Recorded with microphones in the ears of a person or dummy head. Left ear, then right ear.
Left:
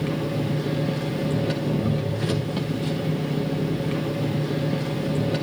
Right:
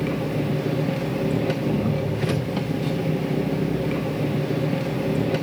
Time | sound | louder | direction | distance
0.0 | an engine running | right 1 dB | 5° right (ahead or behind) | 1.0 m